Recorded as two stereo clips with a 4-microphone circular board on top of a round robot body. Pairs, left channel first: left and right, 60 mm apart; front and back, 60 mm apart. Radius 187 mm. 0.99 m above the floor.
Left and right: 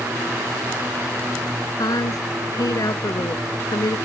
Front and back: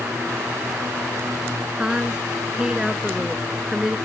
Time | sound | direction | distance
1.8 | a woman speaking | 105° left | ?